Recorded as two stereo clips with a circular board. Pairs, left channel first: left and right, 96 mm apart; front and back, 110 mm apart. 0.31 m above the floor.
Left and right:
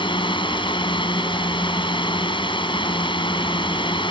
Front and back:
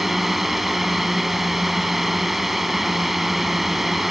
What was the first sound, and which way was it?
A drone, 90° left.